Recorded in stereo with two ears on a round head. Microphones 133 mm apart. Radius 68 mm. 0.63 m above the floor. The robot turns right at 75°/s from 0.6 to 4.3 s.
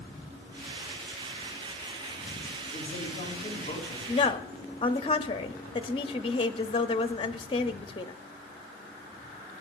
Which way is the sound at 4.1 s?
35° left (ahead or behind).